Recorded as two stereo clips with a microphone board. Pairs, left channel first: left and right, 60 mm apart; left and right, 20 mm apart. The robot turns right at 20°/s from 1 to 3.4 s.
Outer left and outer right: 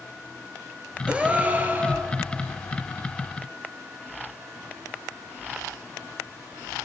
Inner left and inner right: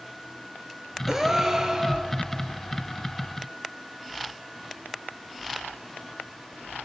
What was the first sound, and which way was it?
A gasp, 20° right (ahead or behind).